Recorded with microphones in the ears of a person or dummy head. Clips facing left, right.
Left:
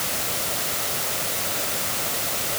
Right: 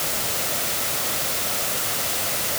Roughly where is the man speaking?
No man speaking in this recording.